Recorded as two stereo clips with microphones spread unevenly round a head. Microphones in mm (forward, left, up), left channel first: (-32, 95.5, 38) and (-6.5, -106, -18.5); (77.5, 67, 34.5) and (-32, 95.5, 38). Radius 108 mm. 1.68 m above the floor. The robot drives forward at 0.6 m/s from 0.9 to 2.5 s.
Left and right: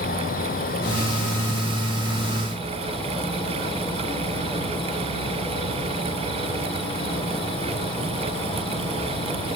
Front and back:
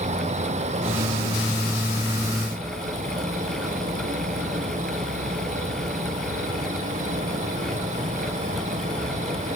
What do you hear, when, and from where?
0.0 s an insect: 150° left, 1.0 m; by 9.6 s 165° left, 1.9 m